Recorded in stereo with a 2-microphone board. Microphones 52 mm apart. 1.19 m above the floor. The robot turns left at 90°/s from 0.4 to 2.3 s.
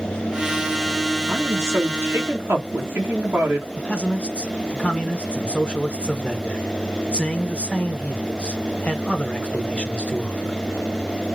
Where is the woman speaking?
35° right, 1.4 m; by 3.7 s 125° right, 1.4 m.